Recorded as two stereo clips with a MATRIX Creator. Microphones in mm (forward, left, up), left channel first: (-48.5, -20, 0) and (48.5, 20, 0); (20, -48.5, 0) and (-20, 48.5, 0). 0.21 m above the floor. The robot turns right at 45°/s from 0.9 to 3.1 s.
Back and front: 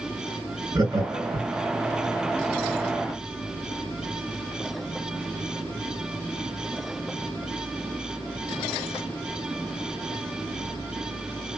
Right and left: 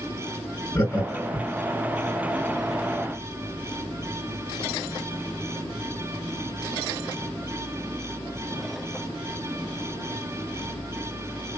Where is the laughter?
20° right, 2 m; by 1.5 s 10° left, 2 m.